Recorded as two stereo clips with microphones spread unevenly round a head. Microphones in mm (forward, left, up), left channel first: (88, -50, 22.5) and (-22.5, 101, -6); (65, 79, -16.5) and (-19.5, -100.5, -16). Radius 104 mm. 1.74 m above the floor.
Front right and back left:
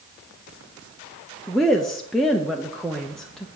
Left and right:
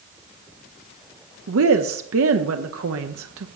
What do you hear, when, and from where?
1.5 s a woman speaking: 140° right, 0.8 m